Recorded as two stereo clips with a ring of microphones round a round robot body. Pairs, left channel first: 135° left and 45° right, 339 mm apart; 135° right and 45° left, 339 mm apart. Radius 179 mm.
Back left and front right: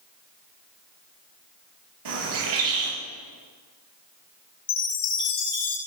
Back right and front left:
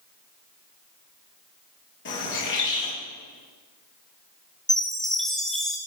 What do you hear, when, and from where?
2.0 s a bird: 75° right, 6.5 m
4.7 s a chime: 135° left, 3 m